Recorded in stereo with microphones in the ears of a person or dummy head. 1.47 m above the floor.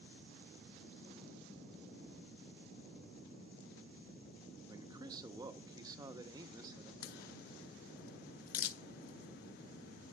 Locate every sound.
4.7 s a man speaking: 20° right (ahead or behind), 0.7 m
7.0 s a crack: 55° left (ahead or behind), 0.6 m